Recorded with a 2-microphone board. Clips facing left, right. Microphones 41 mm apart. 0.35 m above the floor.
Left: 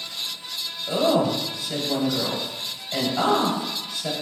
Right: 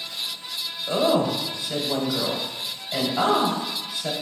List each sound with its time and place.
0.9 s a woman speaking: 20° right (ahead or behind), 1.3 m